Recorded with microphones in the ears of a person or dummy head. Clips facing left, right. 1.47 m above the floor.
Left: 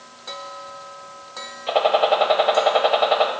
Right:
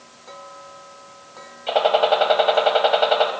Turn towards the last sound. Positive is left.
turn(degrees=0)  # may be behind; listen again after turning